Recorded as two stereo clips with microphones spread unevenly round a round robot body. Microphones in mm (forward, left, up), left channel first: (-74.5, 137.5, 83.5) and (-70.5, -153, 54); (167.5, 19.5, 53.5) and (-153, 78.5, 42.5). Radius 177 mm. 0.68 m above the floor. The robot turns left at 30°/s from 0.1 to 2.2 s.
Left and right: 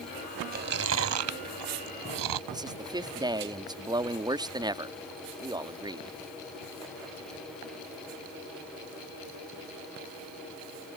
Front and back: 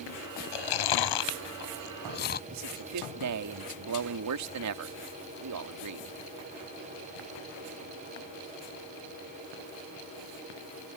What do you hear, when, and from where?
0.5 s chewing: 25° right; by 2.4 s 75° right
2.5 s a man speaking: 160° right